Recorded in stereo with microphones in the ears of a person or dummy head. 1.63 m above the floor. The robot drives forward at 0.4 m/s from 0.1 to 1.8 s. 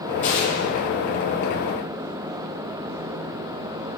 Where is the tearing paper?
40° left (ahead or behind), 1.8 m.